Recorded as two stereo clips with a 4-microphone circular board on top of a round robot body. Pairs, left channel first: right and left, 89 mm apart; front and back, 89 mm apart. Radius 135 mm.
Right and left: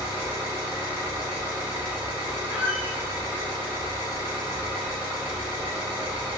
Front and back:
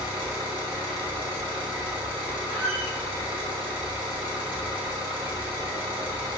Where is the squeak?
165° left, 0.6 m.